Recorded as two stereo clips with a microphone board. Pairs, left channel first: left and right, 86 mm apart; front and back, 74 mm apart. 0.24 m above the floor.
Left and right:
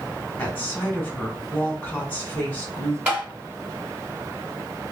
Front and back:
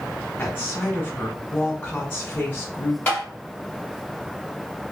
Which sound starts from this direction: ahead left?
A woman speaking, at 0.4 s.